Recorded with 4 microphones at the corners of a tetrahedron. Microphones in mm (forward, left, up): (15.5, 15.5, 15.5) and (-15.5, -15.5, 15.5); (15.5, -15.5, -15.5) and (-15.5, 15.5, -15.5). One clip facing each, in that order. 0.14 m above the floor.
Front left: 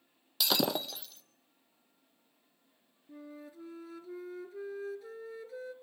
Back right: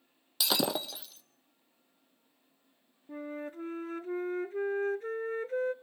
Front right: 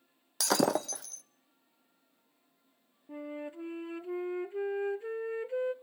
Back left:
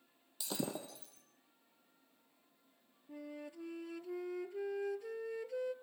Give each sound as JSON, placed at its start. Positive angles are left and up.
{"t": 0.4, "sound": "breaking glass", "azimuth_deg": -45, "distance_m": 0.8}
{"t": 3.1, "sound": "a flute", "azimuth_deg": -100, "distance_m": 0.5}